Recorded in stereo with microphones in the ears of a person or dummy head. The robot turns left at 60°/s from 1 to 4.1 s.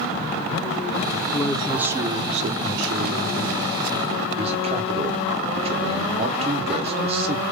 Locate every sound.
1.3 s a man speaking: 15° left, 0.6 m; by 7.4 s 150° right, 0.6 m